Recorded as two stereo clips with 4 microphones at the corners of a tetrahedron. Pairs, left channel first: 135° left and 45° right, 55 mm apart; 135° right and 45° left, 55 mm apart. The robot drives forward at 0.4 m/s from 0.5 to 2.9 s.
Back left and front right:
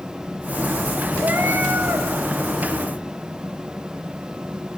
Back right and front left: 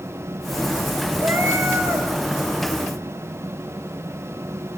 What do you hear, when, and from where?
1.2 s a cat meowing: straight ahead, 4.5 m